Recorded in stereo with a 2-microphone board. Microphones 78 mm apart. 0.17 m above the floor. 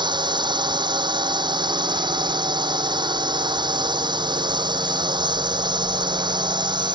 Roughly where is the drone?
Right.